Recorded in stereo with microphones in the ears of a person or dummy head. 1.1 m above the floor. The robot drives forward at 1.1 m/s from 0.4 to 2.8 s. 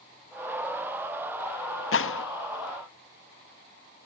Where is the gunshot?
70° left (ahead or behind); by 2.2 s 60° left (ahead or behind).